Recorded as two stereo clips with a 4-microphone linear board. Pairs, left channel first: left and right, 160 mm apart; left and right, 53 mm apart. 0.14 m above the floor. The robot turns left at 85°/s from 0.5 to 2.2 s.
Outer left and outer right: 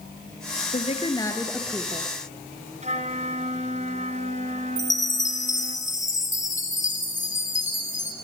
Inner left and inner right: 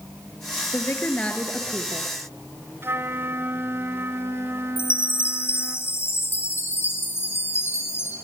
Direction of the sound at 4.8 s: 50° left (ahead or behind).